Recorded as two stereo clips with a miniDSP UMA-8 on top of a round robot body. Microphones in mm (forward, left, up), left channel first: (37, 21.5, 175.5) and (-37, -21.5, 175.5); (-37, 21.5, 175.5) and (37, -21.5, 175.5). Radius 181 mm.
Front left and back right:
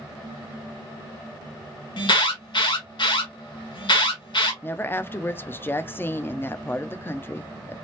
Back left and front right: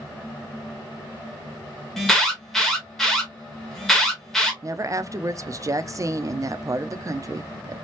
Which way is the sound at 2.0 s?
60° left.